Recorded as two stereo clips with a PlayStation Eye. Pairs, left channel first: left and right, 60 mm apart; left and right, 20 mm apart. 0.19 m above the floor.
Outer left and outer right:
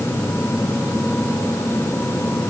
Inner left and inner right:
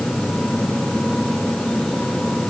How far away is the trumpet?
I don't hear a trumpet.